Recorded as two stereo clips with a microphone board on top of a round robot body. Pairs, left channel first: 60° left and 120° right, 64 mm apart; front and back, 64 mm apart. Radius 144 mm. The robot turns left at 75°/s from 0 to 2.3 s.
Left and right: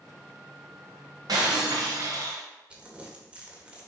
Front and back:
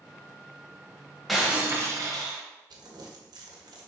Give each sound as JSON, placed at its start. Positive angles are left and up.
{"t": 1.3, "sound": "breaking glass", "azimuth_deg": -90, "distance_m": 0.9}
{"t": 2.7, "sound": "crumpling", "azimuth_deg": 165, "distance_m": 1.6}